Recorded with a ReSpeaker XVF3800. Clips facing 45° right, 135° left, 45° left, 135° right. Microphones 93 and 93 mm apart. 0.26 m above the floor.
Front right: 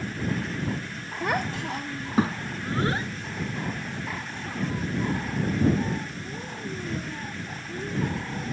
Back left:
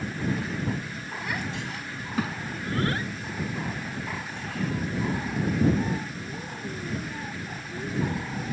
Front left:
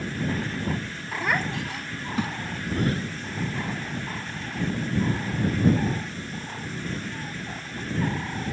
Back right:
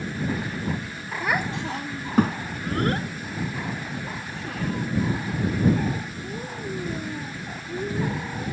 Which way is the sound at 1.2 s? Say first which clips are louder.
Front right 6 dB, back right 1 dB; 45° right.